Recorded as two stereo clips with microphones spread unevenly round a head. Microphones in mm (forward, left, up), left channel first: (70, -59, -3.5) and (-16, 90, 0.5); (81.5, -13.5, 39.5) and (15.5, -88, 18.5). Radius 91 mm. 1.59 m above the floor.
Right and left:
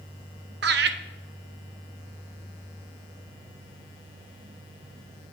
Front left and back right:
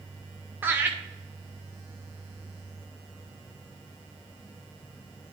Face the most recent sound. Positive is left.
turn(degrees=155)